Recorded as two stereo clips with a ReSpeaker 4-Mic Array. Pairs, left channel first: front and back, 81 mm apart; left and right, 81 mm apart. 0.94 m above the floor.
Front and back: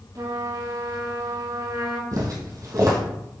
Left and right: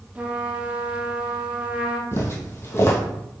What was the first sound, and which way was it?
A trumpet, 160° right.